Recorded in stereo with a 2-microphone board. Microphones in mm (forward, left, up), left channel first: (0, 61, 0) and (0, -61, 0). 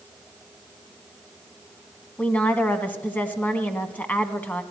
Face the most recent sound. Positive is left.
turn(degrees=15)  # may be behind; listen again after turning